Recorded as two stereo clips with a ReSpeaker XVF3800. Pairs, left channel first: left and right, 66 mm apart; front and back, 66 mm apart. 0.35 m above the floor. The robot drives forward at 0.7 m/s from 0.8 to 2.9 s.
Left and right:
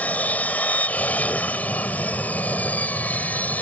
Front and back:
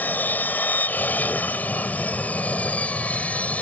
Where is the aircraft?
40° left; by 3.6 s 50° left.